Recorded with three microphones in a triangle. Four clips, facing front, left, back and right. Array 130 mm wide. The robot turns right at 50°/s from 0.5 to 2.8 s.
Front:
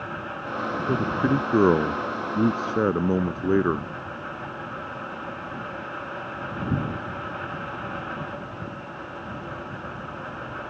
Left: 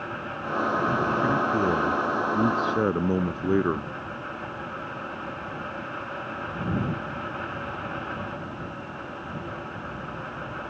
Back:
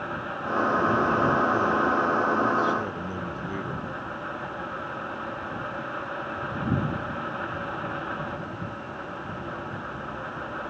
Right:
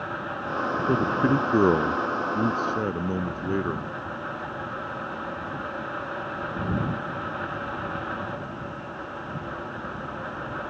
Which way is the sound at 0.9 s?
65° right.